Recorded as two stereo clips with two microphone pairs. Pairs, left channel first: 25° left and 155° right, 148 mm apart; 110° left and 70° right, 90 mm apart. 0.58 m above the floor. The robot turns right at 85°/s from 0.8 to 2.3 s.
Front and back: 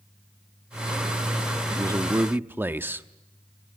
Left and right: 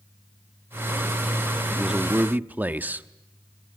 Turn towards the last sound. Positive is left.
turn(degrees=-100)